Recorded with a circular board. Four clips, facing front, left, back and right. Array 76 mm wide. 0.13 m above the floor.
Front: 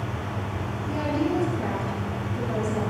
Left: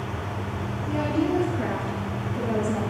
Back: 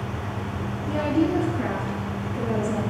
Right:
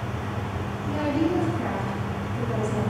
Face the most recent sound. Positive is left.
turn(degrees=125)